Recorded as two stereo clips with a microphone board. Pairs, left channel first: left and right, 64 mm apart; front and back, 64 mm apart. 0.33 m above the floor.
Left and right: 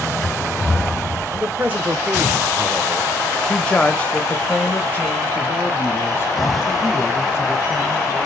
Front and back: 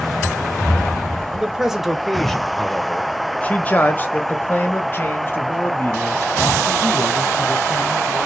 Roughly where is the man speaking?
Right.